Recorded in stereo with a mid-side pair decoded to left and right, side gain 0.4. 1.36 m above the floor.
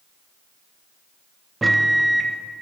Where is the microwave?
20° right, 0.5 m.